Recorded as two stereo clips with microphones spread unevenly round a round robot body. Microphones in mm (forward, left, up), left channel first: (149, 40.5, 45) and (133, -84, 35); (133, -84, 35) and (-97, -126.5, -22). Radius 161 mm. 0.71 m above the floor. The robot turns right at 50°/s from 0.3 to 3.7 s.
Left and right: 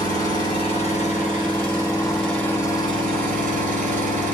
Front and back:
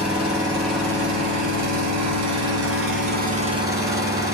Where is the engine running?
100° left, 1.9 m; by 4.3 s 90° right, 1.9 m.